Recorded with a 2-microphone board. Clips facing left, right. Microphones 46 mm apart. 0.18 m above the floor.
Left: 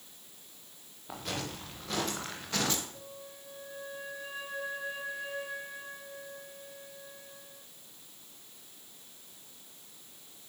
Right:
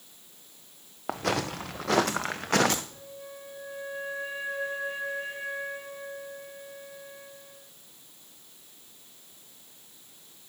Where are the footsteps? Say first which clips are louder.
Right 9 dB; 80° right, 1.6 m; by 2.8 s 55° right (ahead or behind), 1.4 m.